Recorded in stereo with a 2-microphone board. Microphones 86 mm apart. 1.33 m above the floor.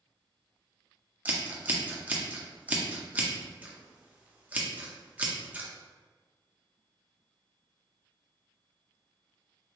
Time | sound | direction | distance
1.2 | scissors | 20° right (ahead or behind) | 0.5 m